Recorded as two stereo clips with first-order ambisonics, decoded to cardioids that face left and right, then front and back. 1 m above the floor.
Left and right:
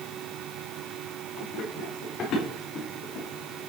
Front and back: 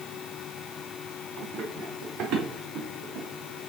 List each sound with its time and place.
1.4 s running footsteps: 140° left, 3.5 m; by 3.6 s 135° left, 1.6 m